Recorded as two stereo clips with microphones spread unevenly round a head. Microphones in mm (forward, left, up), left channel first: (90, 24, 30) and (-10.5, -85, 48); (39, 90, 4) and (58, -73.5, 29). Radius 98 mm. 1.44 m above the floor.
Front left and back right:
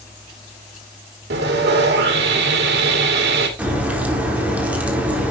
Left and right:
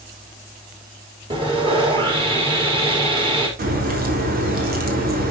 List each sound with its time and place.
1.3 s sawing: 150° right, 2.5 m
3.6 s a crack: 55° right, 4 m